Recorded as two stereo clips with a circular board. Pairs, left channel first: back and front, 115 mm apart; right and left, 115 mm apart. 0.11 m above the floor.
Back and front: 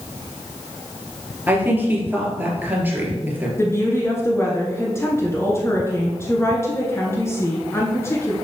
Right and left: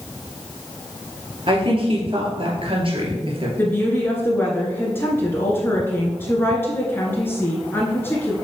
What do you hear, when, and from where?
1.5 s a woman speaking: 70° left, 2.5 m
3.6 s a woman speaking: 140° right, 1.2 m